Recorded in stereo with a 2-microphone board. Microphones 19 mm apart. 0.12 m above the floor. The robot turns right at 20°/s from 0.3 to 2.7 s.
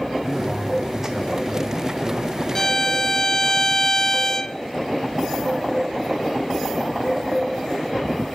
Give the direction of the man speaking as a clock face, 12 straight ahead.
6 o'clock.